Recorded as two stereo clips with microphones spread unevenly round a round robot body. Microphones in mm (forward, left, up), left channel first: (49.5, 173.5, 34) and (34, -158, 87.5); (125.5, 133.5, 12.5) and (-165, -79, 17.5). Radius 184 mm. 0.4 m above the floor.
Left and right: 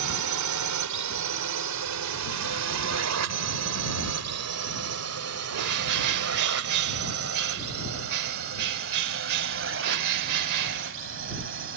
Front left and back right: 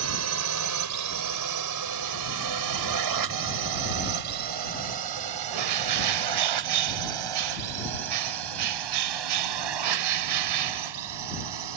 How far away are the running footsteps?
I don't hear running footsteps.